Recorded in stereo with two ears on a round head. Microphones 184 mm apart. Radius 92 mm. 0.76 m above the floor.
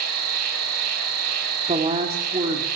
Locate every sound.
0.0 s an insect: 85° right, 5 m
1.7 s a woman speaking: 30° right (ahead or behind), 2.0 m